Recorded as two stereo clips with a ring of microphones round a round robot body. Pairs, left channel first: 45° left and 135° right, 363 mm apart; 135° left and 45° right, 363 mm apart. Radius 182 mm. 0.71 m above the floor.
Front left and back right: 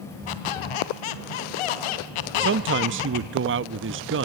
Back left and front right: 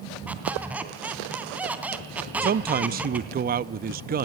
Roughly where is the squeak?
Ahead left.